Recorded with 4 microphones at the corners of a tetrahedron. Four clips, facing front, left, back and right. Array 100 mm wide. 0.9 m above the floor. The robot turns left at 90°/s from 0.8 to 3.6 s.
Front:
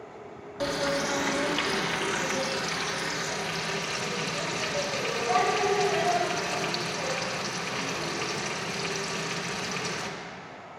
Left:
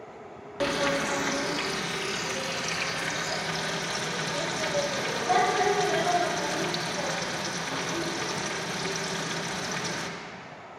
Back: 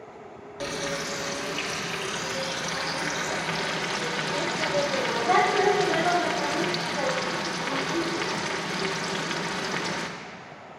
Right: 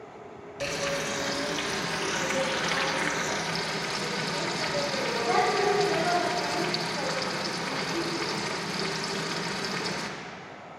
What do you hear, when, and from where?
0.6 s frying: 85° left, 0.9 m; by 10.1 s 165° right, 0.9 m